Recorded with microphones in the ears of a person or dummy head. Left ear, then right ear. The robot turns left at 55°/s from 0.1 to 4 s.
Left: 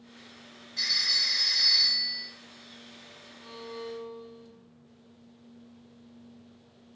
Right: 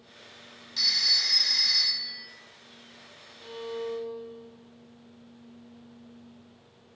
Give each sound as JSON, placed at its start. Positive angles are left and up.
{"t": 0.8, "sound": "a phone ringing", "azimuth_deg": -55, "distance_m": 0.7}
{"t": 3.4, "sound": "a violin", "azimuth_deg": -80, "distance_m": 0.6}